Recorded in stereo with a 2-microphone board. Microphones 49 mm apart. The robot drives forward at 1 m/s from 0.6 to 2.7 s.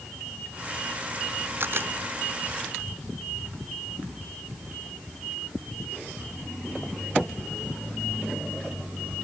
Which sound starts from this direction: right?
A camera shutter, at 1.6 s.